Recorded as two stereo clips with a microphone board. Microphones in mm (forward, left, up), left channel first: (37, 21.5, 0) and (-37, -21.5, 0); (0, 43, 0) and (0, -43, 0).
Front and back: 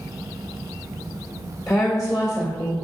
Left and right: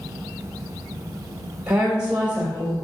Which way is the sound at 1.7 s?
15° right.